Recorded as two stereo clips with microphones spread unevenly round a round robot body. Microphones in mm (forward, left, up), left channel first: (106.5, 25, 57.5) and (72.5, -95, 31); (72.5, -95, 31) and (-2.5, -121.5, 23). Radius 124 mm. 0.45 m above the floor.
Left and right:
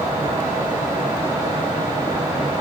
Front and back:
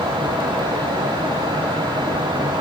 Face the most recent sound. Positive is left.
No sound to turn to.